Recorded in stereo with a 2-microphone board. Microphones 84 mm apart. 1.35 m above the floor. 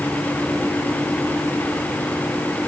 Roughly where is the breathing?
No breathing in this recording.